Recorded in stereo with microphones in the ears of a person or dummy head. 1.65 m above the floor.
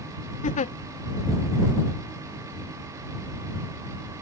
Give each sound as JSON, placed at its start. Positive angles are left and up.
{"t": 0.4, "sound": "a giggle", "side_deg": 35}